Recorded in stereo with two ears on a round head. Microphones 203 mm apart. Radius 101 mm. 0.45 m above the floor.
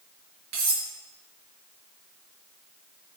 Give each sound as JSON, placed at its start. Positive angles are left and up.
{"t": 0.5, "sound": "cutlery clinking", "side_deg": -80, "distance_m": 4.5}